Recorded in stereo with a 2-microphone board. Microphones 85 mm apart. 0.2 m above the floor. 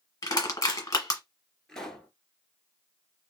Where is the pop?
5° left (ahead or behind), 1.4 m.